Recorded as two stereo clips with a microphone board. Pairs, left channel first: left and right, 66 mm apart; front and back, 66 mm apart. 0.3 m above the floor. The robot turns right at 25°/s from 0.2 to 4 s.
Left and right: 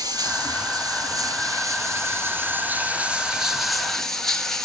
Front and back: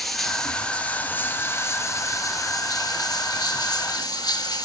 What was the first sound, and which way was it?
Running water, 90° right.